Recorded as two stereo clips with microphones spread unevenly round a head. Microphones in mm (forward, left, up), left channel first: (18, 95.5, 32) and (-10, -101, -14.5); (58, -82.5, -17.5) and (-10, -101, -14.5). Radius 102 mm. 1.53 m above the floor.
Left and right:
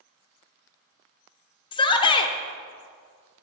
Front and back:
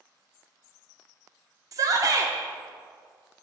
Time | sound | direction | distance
1.7 | a shout | 145° left | 0.7 m